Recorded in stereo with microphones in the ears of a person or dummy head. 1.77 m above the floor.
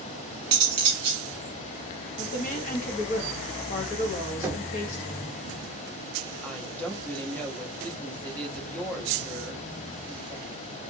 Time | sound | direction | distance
0.5 | cutlery clinking | 30° right (ahead or behind) | 1.2 m
2.2 | a woman speaking | 45° left (ahead or behind) | 0.9 m
4.4 | knocking | 10° right (ahead or behind) | 0.7 m
6.4 | a woman speaking | 10° left (ahead or behind) | 0.7 m